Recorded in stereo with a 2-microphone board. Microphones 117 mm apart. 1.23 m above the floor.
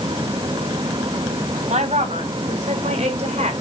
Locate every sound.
1.7 s a woman speaking: 80° right, 4 m; by 3.5 s 70° right (ahead or behind), 4.5 m